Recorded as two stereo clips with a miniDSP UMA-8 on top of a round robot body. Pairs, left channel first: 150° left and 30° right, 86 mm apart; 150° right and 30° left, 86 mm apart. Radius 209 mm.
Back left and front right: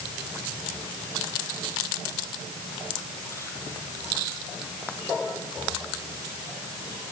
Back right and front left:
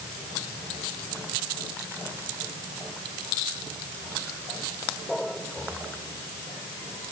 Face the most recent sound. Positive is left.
No sound to turn to.